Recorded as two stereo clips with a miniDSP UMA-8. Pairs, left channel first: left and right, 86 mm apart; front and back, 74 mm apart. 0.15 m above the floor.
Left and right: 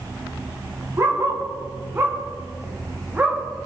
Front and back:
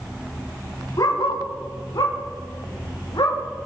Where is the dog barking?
35° right, 5.5 m; by 3.4 s 20° right, 6.5 m.